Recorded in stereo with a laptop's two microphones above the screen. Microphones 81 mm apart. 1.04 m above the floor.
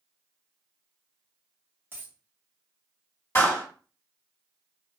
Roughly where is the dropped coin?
Right.